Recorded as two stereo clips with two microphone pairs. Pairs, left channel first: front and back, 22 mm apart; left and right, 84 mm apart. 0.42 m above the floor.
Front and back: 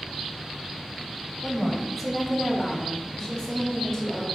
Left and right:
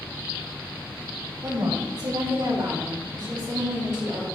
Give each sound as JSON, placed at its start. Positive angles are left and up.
{"t": 1.4, "sound": "a woman speaking", "azimuth_deg": -105, "distance_m": 2.0}